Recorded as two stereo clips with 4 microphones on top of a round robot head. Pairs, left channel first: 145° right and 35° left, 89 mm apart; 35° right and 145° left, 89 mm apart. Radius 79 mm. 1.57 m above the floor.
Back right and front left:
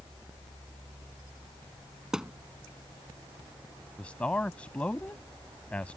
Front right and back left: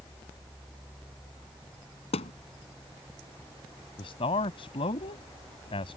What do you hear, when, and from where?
2.1 s a thud: 45° right
4.0 s a man speaking: 65° right